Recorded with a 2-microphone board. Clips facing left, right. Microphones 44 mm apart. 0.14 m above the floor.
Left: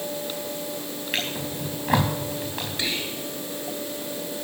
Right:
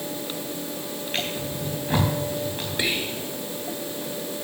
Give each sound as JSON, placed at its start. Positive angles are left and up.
{"t": 1.1, "sound": "a drawer", "side_deg": 85, "distance_m": 4.5}
{"t": 2.8, "sound": "whispering", "side_deg": -20, "distance_m": 2.0}